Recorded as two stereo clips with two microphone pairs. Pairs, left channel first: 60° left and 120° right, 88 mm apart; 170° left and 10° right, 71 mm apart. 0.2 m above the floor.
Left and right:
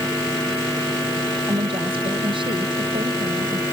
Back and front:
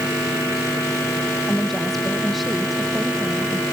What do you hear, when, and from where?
1.5 s a woman speaking: 105° right; by 3.6 s 90° right